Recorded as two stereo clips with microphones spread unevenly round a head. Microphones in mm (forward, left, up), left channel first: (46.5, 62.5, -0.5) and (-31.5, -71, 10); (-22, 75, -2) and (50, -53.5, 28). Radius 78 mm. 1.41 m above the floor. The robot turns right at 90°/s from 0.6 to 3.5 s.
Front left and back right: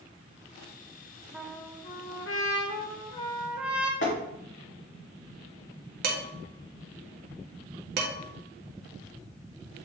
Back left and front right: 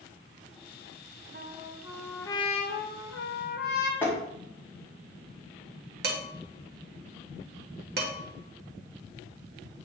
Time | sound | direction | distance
1.3 | a trumpet | 40° right | 1.0 m
4.0 | tapping | 40° left | 2 m
6.0 | dishes clattering | 90° right | 1.7 m